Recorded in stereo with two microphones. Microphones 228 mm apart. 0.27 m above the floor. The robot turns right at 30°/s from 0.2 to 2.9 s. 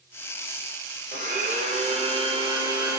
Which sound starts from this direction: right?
A blender, at 1.1 s.